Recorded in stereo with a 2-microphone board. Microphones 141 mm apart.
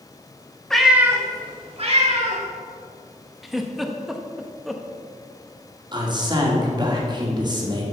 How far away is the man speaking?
About 1.9 m.